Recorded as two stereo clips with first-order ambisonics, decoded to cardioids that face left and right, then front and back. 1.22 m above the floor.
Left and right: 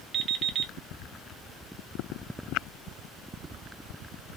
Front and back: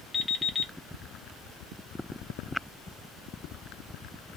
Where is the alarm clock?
75° right, 0.5 m.